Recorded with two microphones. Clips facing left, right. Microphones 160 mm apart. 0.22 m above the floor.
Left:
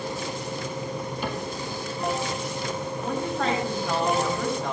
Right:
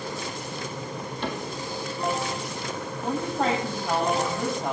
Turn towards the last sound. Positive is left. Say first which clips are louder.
# right 2 dB
turn(degrees=-10)  # may be behind; listen again after turning